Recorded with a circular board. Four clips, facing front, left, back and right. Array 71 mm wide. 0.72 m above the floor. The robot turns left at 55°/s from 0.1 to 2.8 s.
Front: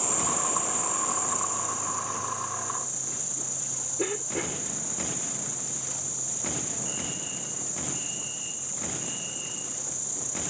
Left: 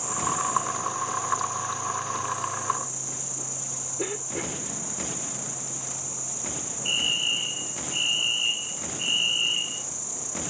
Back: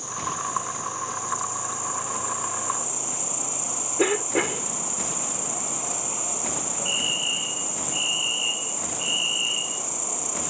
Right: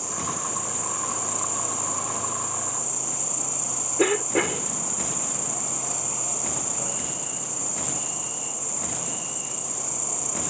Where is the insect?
Straight ahead; by 10.5 s 150° right.